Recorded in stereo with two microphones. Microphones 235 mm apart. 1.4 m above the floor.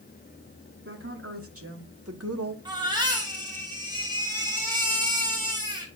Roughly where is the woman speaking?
Right.